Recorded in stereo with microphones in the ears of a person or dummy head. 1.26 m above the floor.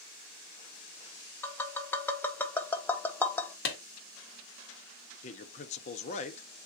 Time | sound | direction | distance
1.4 | tapping | 15° left (ahead or behind) | 0.6 m
3.6 | a clap | 70° left (ahead or behind) | 1.2 m
5.2 | a man speaking | 40° left (ahead or behind) | 0.6 m